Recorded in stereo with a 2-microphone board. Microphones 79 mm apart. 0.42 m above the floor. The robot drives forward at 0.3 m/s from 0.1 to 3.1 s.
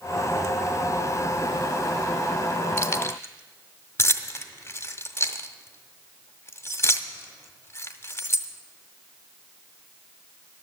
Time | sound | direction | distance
2.8 | keys jangling | 30° left (ahead or behind) | 0.7 m